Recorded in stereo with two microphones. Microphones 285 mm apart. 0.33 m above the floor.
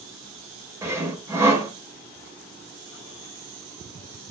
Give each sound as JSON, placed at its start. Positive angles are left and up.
{"t": 0.8, "sound": "sawing", "side_deg": -10, "distance_m": 0.6}